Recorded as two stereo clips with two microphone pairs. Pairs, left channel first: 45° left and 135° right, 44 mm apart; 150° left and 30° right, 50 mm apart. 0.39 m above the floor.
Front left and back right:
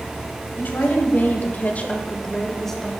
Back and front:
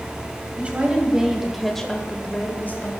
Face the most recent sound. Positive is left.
turn(degrees=130)